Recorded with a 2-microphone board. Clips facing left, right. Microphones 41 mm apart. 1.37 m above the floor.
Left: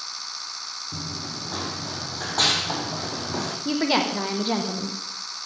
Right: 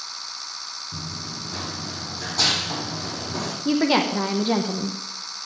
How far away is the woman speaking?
About 0.8 m.